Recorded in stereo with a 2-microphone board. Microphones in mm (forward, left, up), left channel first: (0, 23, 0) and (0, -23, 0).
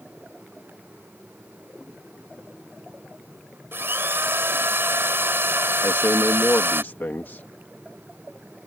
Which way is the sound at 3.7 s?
55° right (ahead or behind).